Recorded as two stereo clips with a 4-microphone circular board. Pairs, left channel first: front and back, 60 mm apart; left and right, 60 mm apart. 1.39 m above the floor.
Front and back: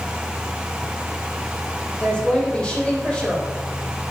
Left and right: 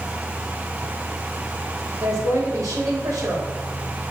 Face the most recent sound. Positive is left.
turn(degrees=-75)